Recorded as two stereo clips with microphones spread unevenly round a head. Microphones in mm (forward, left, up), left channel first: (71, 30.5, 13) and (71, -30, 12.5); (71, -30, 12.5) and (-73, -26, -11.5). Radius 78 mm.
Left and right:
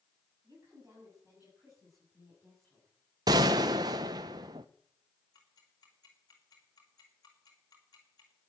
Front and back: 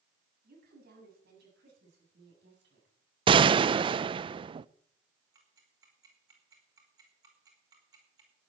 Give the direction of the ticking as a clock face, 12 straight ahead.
8 o'clock.